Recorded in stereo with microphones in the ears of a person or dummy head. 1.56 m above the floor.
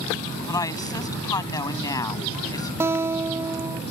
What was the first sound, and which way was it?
A woman speaking, 25° left (ahead or behind).